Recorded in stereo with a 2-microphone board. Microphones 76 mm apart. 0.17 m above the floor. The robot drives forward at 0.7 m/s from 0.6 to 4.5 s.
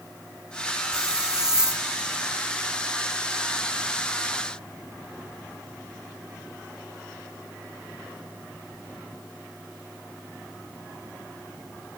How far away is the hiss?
About 2.5 m.